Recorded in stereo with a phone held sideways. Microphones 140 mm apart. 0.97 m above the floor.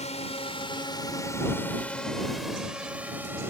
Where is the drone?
50° left (ahead or behind); by 3.5 s 15° right (ahead or behind).